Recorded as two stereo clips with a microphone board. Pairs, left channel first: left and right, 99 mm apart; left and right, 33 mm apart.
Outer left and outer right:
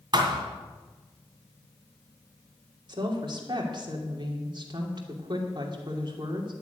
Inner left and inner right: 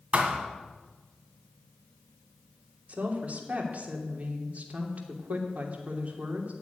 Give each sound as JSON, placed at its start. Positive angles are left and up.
{"t": 0.1, "sound": "a thud", "side_deg": -50, "distance_m": 2.0}
{"t": 2.9, "sound": "a woman speaking", "side_deg": -50, "distance_m": 2.5}